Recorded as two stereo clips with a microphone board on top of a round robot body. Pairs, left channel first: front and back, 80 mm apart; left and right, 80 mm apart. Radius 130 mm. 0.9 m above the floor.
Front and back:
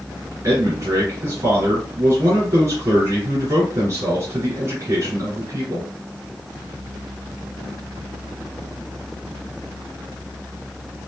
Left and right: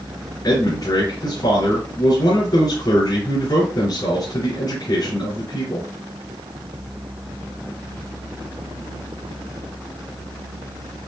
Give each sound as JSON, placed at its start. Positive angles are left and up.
{"t": 0.4, "sound": "a man speaking", "azimuth_deg": 125, "distance_m": 3.5}